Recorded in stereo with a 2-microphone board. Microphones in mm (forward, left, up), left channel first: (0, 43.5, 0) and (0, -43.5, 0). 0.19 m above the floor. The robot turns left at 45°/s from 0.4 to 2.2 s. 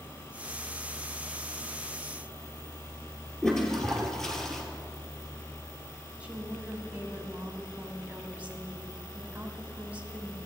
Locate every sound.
3.4 s a toilet flushing: 5° left (ahead or behind), 1.3 m
6.2 s a woman speaking: 15° right (ahead or behind), 1.0 m